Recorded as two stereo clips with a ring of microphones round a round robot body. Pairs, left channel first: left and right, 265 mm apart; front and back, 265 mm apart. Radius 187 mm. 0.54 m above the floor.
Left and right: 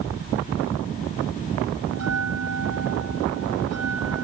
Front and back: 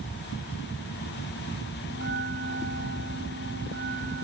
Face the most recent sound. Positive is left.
turn(degrees=-115)